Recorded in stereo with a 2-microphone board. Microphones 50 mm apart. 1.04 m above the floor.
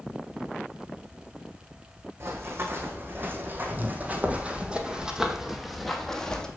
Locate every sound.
2.2 s running footsteps: 50° right (ahead or behind), 2.5 m; by 6.5 s 15° left (ahead or behind), 1.6 m